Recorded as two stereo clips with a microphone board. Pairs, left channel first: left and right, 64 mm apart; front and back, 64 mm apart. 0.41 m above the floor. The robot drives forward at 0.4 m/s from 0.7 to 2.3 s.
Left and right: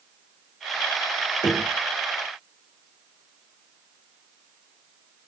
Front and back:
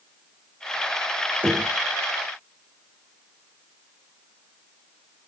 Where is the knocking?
120° left, 6.5 m.